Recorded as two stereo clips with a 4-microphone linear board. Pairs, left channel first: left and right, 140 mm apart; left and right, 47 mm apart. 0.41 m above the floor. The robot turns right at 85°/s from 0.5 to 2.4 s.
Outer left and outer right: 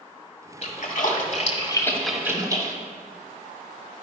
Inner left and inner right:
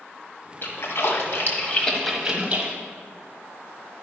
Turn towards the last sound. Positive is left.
turn(degrees=-25)  # may be behind; listen again after turning